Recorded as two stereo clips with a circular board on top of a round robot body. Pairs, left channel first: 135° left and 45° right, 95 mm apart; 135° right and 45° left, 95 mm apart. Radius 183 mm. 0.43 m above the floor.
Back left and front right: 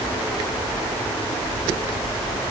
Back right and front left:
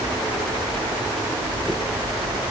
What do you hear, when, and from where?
Only background noise.